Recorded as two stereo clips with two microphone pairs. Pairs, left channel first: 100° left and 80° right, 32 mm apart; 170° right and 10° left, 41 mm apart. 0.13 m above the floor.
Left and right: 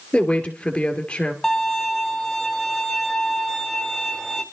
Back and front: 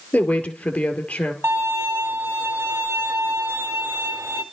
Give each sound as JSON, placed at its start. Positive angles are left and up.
{"t": 0.1, "sound": "a woman speaking", "azimuth_deg": 145, "distance_m": 2.5}
{"t": 1.4, "sound": "a violin", "azimuth_deg": 15, "distance_m": 1.9}